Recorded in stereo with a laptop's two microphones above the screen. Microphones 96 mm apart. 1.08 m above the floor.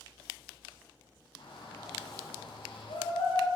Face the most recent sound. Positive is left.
turn(degrees=85)